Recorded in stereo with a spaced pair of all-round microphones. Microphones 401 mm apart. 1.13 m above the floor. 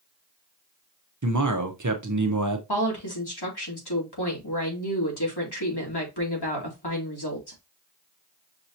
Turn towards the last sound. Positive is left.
turn(degrees=75)  # may be behind; listen again after turning